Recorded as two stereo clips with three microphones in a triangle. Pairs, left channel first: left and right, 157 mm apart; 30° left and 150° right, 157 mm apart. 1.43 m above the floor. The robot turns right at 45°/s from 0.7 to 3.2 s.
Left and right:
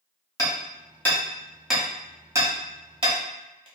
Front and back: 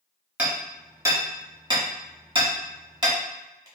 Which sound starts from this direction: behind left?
Hammering, at 0.4 s.